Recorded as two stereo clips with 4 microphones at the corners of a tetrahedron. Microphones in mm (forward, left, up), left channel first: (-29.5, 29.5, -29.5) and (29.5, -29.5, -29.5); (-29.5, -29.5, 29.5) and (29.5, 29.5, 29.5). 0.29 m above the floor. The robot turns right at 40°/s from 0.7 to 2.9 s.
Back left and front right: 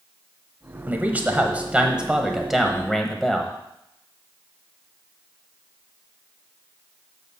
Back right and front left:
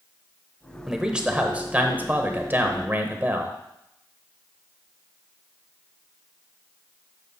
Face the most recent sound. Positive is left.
turn(degrees=55)